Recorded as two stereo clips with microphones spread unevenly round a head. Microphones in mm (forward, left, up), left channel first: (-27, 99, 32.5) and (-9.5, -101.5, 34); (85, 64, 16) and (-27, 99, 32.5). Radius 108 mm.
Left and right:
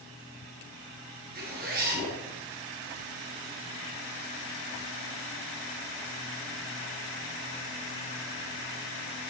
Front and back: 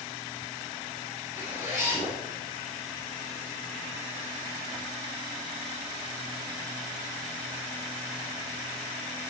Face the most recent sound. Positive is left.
turn(degrees=-125)